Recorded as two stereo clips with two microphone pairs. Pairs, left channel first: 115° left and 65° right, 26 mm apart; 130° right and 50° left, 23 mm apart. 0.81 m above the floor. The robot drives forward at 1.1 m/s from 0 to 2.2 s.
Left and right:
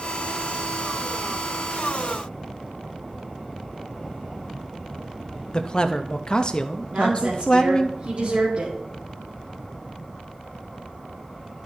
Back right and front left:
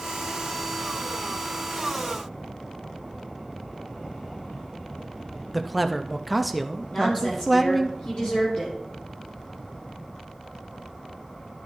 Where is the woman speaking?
90° right, 1.9 m.